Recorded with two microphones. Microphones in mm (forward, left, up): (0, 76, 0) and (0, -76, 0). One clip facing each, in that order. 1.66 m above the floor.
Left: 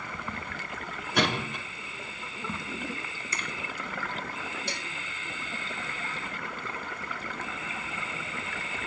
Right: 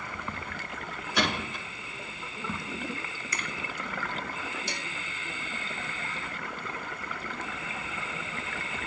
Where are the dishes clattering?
55° left (ahead or behind), 6 m.